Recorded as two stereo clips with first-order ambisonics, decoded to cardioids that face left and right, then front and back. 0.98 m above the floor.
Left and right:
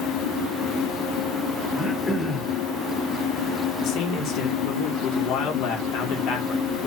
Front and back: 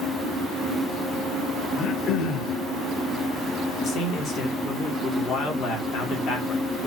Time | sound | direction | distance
1.8 | throat clearing | 10° left | 0.8 m
3.8 | a man speaking | 50° left | 2 m